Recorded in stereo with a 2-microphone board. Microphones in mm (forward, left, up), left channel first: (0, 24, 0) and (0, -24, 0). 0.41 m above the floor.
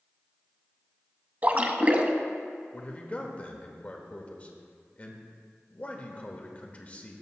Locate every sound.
1.4 s a splash: 35° right (ahead or behind), 0.6 m
2.7 s a man speaking: 30° left (ahead or behind), 0.9 m